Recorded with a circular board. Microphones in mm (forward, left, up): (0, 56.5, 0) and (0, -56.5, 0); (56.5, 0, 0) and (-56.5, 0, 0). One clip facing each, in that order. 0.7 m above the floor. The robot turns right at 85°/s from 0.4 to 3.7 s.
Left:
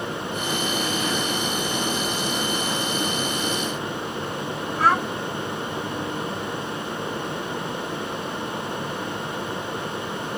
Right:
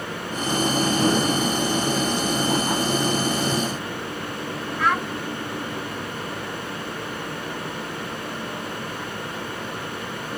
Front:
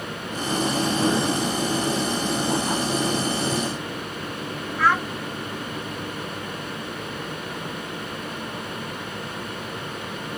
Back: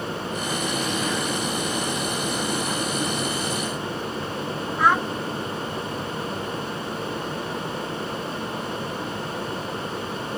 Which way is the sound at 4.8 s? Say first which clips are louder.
Left 3 dB, back 1 dB; 115° left.